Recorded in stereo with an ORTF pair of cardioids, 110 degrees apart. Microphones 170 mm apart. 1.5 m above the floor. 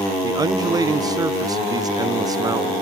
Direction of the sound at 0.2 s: 20° right.